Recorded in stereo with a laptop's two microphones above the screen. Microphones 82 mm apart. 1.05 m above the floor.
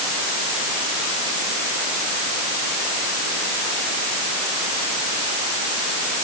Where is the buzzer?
I don't hear a buzzer.